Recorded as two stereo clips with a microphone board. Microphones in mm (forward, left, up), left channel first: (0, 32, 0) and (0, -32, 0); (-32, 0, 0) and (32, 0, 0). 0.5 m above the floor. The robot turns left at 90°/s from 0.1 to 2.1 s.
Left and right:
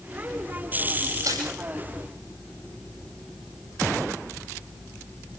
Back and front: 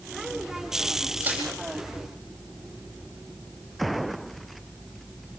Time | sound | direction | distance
1.2 | crushing | 65° right | 9.5 m